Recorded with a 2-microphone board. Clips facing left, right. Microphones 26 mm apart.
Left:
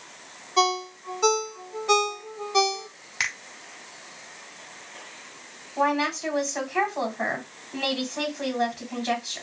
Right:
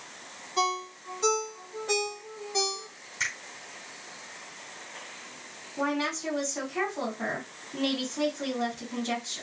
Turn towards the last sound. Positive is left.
turn(degrees=65)  # may be behind; listen again after turning